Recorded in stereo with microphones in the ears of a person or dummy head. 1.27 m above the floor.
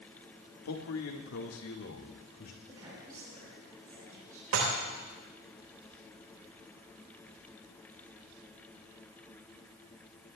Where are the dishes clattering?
75° right (ahead or behind), 4 m.